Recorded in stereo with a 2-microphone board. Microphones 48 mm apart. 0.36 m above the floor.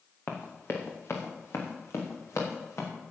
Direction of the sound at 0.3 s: 45° left (ahead or behind).